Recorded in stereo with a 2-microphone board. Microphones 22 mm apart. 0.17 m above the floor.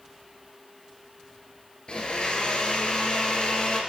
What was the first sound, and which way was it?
A blender, 50° left (ahead or behind).